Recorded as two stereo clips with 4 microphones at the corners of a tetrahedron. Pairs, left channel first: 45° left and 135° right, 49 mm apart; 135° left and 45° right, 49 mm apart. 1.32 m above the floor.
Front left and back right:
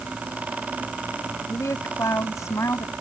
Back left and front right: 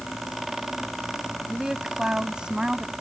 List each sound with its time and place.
1.5 s a woman speaking: 35° left; by 2.9 s 30° left